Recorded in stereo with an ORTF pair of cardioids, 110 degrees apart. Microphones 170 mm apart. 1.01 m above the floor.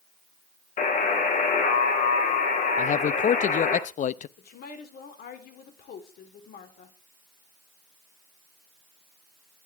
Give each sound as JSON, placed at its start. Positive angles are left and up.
{"t": 0.8, "sound": "a buzzer", "azimuth_deg": 50, "distance_m": 5.0}
{"t": 2.8, "sound": "a man speaking", "azimuth_deg": 45, "distance_m": 0.7}
{"t": 4.4, "sound": "a woman speaking", "azimuth_deg": 65, "distance_m": 3.5}